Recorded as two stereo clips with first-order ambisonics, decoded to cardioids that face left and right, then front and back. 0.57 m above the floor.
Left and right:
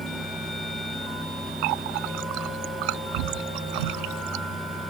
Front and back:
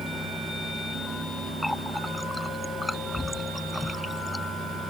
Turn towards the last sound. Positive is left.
turn(degrees=-85)